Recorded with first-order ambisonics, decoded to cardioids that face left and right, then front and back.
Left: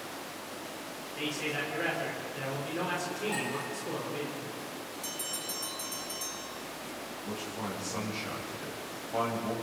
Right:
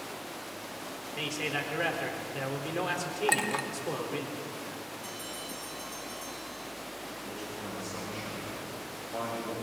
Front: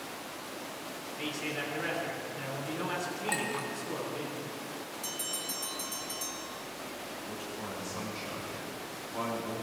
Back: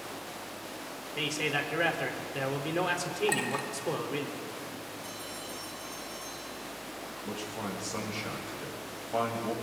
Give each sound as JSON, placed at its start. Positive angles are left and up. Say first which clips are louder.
{"t": 1.2, "sound": "a man speaking", "louder": "right 1 dB, back 6 dB", "azimuth_deg": -160, "distance_m": 4.0}
{"t": 3.3, "sound": "a clink", "louder": "right 8 dB, even", "azimuth_deg": -100, "distance_m": 1.7}
{"t": 5.0, "sound": "a bell", "louder": "left 2 dB, front 3 dB", "azimuth_deg": 35, "distance_m": 2.5}
{"t": 7.2, "sound": "a man speaking", "louder": "left 4 dB, back 5 dB", "azimuth_deg": 165, "distance_m": 8.0}